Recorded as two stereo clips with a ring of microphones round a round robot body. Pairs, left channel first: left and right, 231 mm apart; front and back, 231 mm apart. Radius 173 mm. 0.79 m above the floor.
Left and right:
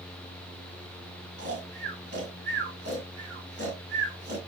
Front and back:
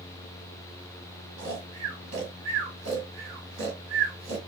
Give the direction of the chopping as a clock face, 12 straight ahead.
No chopping in this recording.